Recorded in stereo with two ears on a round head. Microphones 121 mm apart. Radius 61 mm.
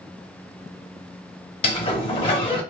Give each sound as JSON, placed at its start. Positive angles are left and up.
{"t": 1.6, "sound": "a sliding door", "side_deg": 40, "distance_m": 0.6}